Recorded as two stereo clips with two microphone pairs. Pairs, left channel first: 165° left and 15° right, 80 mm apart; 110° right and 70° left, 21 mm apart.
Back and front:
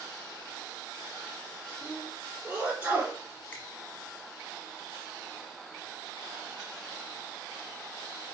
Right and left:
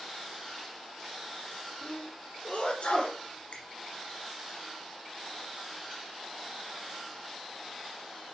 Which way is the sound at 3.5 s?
120° right.